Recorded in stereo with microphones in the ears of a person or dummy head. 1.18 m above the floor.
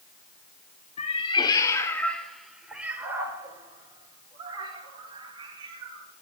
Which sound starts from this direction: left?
A cat meowing, at 1.0 s.